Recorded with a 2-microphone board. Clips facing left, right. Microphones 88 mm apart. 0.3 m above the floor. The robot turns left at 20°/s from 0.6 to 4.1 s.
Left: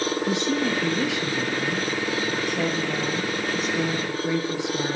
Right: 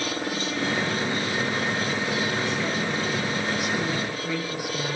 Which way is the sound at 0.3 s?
95° left.